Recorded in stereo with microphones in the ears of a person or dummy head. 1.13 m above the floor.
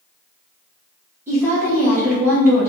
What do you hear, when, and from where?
1.3 s a woman speaking: 10° right (ahead or behind), 1.0 m